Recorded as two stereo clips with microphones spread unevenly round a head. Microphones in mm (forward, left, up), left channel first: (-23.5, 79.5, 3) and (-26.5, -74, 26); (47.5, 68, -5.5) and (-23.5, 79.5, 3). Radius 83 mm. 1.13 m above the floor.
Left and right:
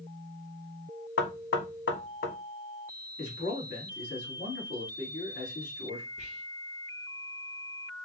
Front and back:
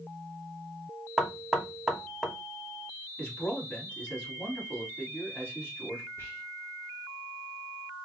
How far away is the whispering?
About 1.2 m.